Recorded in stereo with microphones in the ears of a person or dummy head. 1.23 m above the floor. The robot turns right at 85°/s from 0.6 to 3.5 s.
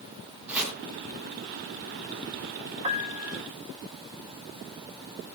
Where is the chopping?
5° right (ahead or behind), 4.5 m; by 0.8 s 5° left (ahead or behind), 4.5 m.